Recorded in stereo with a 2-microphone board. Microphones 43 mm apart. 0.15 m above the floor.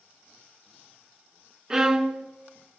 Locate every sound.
1.7 s a violin: 20° right (ahead or behind), 0.8 m